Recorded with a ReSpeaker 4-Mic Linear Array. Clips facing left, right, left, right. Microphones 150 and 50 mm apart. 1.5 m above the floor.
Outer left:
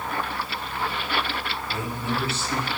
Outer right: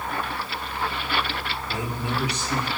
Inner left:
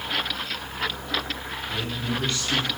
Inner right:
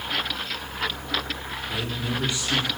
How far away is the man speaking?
About 5 m.